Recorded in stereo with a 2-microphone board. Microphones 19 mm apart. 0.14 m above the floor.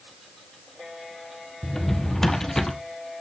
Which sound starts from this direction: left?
A drawer, at 1.6 s.